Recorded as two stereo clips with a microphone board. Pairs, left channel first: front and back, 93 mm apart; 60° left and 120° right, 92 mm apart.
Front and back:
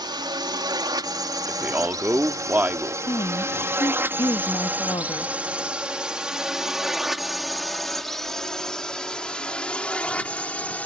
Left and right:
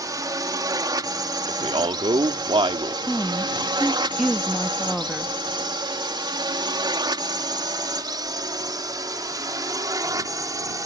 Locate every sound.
0.0 s a drone: 160° right; by 10.9 s 70° right
1.5 s a man speaking: 115° right
3.1 s a woman speaking: 30° right